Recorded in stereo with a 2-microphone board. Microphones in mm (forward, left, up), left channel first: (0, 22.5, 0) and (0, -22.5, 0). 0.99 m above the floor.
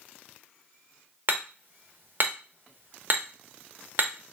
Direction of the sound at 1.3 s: 50° right (ahead or behind).